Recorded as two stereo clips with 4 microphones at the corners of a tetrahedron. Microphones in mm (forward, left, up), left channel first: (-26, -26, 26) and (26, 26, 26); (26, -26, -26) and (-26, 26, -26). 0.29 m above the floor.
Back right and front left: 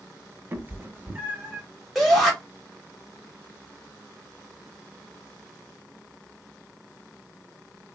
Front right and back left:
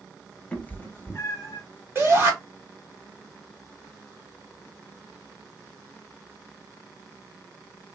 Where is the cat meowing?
10° left, 0.5 m; by 1.6 s 20° right, 0.9 m.